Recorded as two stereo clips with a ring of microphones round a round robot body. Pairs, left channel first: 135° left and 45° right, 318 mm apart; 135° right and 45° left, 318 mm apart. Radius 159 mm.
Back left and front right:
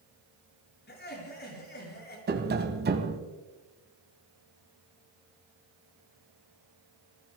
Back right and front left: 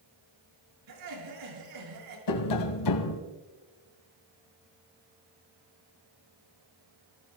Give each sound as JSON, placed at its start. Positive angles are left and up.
{"t": 0.9, "sound": "laughter", "azimuth_deg": 75, "distance_m": 8.0}
{"t": 2.3, "sound": "tapping", "azimuth_deg": -105, "distance_m": 1.9}